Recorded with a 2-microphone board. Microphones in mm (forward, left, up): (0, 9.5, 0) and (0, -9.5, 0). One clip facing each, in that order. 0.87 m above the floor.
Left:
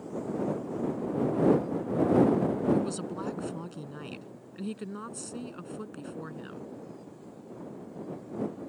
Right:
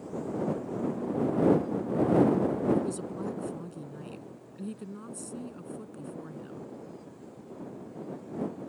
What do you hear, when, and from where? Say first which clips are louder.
2.7 s a woman speaking: even; 35° left (ahead or behind)